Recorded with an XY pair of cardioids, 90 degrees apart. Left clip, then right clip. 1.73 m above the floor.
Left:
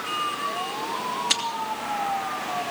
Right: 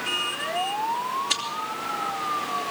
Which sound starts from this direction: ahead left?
Chewing, at 1.3 s.